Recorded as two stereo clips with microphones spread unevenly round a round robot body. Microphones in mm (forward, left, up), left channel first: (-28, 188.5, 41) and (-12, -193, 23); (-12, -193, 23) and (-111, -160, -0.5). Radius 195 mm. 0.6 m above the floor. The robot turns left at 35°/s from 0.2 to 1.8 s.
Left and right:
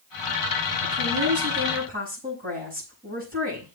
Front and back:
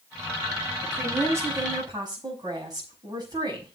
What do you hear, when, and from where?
0.8 s a woman speaking: 120° right, 6 m; by 3.8 s 155° right, 6 m